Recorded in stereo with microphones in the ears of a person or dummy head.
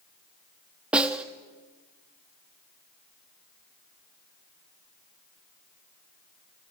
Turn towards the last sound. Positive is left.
turn(degrees=-5)  # may be behind; listen again after turning